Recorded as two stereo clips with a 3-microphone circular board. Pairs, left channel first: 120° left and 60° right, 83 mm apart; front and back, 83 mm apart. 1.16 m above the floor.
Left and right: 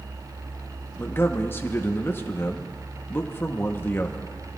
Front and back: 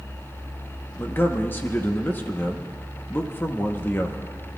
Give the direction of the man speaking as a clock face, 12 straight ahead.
10 o'clock.